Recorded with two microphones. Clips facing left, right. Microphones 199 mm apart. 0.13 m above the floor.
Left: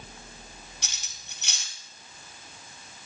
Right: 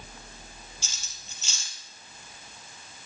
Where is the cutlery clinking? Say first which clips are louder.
Left 1 dB; 65° left (ahead or behind), 2 m.